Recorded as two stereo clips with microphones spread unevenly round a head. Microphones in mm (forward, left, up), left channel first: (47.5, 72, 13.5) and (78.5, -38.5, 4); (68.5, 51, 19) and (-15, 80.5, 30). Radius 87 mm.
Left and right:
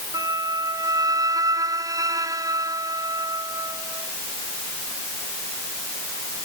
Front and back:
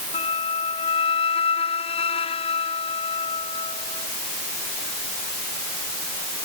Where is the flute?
15° right.